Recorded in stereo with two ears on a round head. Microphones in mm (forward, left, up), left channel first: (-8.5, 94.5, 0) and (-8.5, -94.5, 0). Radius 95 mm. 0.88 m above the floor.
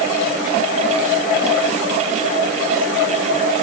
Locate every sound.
Only background noise.